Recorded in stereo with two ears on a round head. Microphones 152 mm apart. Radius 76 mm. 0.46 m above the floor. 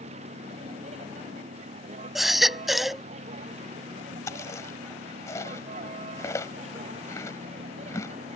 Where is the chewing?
20° left (ahead or behind).